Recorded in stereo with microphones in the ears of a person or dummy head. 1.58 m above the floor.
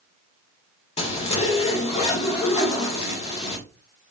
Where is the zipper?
35° left (ahead or behind), 1.2 m.